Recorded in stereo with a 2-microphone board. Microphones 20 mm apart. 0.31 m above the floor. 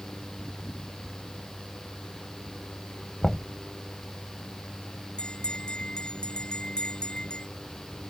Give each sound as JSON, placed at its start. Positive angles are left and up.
{"t": 3.2, "sound": "knocking", "side_deg": 15}
{"t": 5.2, "sound": "a bell", "side_deg": 50}